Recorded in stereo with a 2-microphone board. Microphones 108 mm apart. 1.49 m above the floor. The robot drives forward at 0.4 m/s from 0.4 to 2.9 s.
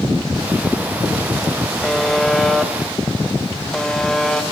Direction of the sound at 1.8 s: 5° left (ahead or behind).